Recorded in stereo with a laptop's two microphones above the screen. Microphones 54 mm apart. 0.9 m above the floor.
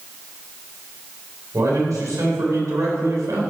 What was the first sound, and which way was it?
A man speaking, 80° right.